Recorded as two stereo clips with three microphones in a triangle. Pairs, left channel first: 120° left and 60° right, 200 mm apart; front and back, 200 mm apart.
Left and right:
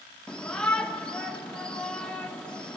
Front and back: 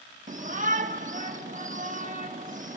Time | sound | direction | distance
0.3 | a shout | 155° right | 0.8 m